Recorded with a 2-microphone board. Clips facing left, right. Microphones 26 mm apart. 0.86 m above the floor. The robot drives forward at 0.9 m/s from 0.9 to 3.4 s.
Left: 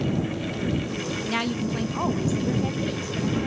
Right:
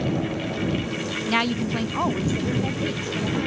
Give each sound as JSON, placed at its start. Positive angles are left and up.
{"t": 1.3, "sound": "a woman speaking", "side_deg": -20, "distance_m": 0.6}